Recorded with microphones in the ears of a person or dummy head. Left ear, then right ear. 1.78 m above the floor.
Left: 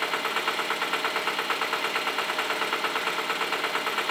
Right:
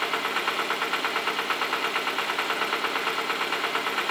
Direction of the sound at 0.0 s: 5° left (ahead or behind).